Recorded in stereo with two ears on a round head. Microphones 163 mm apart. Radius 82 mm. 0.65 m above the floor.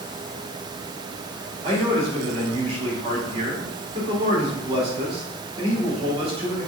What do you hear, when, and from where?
1.6 s a man speaking: 35° right (ahead or behind), 2.5 m